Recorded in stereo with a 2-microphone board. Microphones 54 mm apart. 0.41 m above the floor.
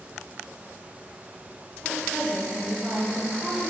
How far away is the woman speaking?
About 1.2 m.